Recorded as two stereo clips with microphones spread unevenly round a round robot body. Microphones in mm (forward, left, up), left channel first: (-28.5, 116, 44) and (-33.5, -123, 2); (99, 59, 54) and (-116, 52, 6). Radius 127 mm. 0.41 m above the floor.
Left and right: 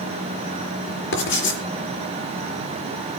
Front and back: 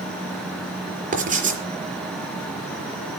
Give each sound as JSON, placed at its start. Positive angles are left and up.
{"t": 1.1, "sound": "writing", "azimuth_deg": 130, "distance_m": 4.5}